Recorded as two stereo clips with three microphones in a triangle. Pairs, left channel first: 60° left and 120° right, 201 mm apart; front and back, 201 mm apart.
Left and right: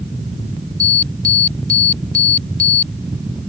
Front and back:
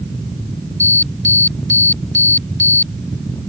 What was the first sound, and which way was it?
An alarm, 165° right.